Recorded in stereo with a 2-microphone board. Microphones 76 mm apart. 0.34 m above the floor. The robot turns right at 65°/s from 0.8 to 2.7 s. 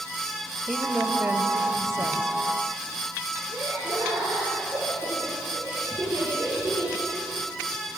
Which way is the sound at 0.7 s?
175° right.